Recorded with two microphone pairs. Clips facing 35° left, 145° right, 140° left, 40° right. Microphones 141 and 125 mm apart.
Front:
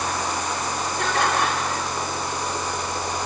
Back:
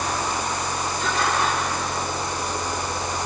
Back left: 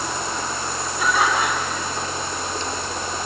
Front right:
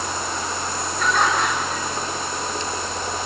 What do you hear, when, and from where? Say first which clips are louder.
1.0 s laughter: front 2 dB, even; 60° left, 6.5 m